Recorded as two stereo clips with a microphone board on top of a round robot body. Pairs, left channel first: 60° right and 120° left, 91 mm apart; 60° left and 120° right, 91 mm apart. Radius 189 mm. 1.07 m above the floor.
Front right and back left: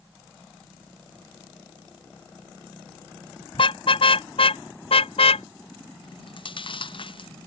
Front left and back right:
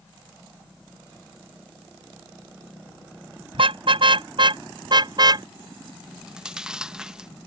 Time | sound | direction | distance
3.5 | a car horn | 90° right | ?
6.0 | chewing | 35° right | ?